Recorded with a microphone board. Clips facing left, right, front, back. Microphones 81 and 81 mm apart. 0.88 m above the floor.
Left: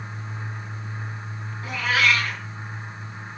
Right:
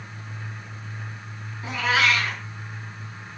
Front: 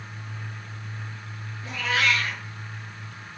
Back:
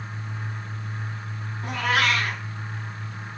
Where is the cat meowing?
155° right, 4 m.